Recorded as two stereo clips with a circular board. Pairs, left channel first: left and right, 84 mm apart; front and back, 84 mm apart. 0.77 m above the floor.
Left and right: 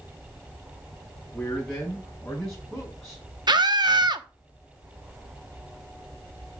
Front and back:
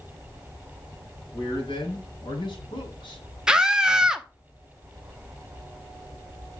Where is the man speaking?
5° left, 5.5 m.